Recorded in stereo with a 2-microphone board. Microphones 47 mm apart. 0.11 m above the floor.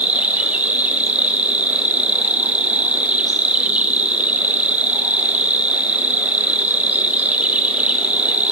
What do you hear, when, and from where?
0.0 s an insect: 35° right (ahead or behind), 0.7 m